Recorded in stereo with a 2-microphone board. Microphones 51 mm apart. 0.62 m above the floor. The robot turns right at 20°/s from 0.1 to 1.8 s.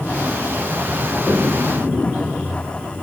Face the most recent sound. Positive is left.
turn(degrees=20)  # may be behind; listen again after turning